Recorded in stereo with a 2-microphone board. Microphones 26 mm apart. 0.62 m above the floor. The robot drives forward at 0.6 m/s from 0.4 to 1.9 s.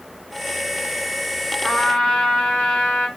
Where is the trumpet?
75° left (ahead or behind), 3.5 m.